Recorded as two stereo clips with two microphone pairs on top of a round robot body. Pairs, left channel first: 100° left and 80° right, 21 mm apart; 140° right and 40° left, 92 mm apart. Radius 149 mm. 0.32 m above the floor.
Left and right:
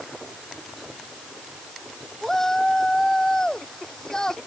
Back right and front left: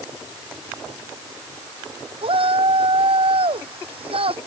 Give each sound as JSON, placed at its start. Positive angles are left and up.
{"t": 2.2, "sound": "a shout", "azimuth_deg": 25}